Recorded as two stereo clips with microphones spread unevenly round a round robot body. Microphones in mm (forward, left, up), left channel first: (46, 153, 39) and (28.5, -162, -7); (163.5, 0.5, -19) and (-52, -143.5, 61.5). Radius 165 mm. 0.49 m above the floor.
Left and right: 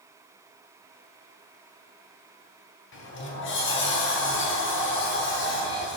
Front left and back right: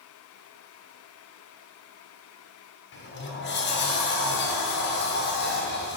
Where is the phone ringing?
No phone ringing in this recording.